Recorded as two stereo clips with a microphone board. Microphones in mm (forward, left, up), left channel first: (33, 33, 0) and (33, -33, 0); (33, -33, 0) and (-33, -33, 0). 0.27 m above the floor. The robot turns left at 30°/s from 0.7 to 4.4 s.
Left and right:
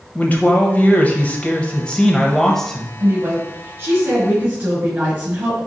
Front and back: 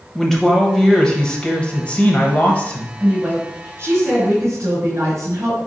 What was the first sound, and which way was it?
A man speaking, 75° left.